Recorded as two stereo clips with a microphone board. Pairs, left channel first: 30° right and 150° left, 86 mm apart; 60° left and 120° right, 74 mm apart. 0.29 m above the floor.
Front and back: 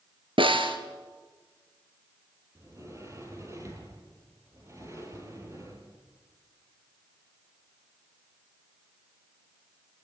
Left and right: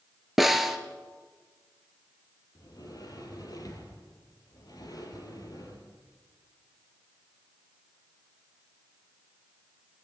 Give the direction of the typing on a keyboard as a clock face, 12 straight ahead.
No typing on a keyboard in this recording.